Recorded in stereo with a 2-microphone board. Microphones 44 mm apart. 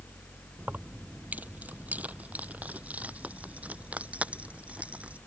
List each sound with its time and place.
0.6 s keys jangling: 40° right (ahead or behind); by 5.2 s 30° right (ahead or behind)